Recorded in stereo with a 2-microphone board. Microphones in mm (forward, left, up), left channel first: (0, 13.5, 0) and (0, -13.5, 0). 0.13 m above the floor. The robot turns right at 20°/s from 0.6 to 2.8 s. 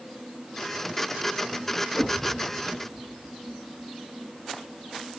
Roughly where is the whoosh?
Right.